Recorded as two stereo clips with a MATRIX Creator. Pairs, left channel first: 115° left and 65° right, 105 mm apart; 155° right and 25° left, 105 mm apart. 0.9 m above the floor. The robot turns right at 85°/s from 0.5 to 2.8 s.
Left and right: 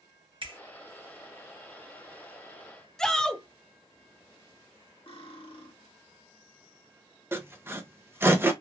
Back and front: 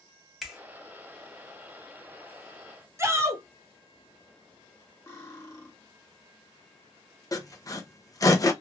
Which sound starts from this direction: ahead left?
A shout, at 3.0 s.